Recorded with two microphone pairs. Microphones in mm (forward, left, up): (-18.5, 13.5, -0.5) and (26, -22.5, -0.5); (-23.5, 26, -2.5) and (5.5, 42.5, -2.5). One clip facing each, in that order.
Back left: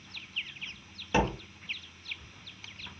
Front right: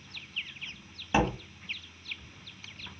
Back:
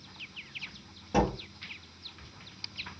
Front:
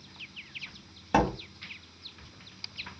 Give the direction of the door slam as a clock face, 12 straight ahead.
11 o'clock.